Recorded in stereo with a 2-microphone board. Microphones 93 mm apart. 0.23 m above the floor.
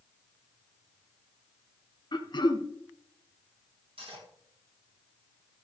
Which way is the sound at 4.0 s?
75° right (ahead or behind).